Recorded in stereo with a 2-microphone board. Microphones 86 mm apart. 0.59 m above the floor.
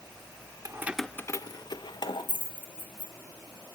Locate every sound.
0.7 s keys jangling: 40° right (ahead or behind), 0.8 m; by 3.1 s 75° left (ahead or behind), 3.5 m